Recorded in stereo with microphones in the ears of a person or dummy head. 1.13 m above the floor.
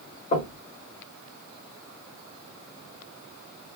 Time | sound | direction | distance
0.3 | knocking | 40° left (ahead or behind) | 1.2 m